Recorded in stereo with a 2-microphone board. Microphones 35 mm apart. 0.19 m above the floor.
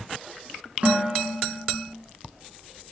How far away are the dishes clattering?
About 1.5 m.